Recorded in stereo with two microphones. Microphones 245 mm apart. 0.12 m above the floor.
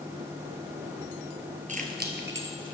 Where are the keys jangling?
30° right (ahead or behind), 1.9 m; by 2.8 s 60° right (ahead or behind), 2.5 m.